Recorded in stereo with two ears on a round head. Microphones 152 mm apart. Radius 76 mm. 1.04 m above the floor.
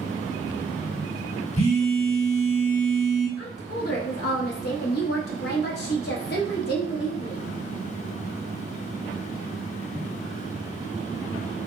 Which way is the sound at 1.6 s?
40° left (ahead or behind).